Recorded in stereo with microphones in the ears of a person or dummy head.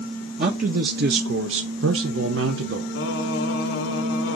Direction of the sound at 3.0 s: 80° left.